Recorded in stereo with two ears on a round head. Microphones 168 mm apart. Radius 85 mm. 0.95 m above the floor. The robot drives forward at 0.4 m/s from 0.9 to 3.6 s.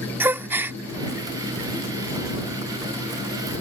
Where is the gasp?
10° right (ahead or behind).